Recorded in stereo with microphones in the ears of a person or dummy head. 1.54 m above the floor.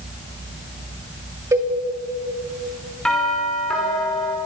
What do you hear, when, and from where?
1.5 s a cowbell: 15° right (ahead or behind), 3 m
3.0 s a doorbell: 5° left (ahead or behind), 5.5 m